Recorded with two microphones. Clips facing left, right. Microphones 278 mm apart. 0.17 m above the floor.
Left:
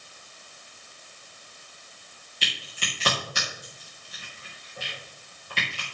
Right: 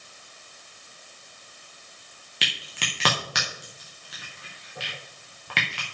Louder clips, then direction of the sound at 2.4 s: Right 2 dB; 75° right (ahead or behind).